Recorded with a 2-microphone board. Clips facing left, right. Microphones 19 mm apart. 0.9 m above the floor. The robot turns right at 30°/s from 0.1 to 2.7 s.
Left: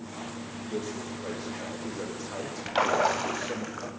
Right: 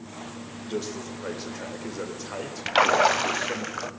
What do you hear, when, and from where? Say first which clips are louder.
0.6 s a man speaking: right 3 dB; 95° right, 4 m; by 3.7 s 35° right, 4 m
2.7 s a splash: right 5 dB; 50° right (ahead or behind), 1.3 m